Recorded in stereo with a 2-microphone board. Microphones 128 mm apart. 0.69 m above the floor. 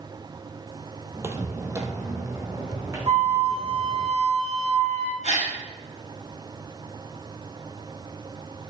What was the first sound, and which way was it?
Footsteps, 20° right (ahead or behind).